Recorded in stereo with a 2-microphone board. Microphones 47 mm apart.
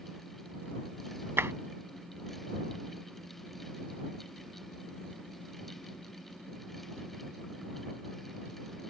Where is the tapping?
70° right (ahead or behind).